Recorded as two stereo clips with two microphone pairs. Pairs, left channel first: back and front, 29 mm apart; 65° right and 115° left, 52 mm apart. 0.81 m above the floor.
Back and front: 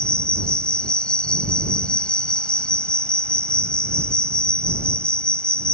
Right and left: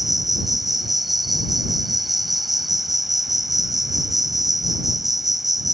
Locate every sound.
0.0 s an insect: 160° right